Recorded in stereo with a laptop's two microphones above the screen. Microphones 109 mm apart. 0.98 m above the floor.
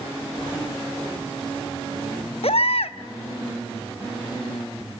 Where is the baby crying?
70° left (ahead or behind), 0.7 m.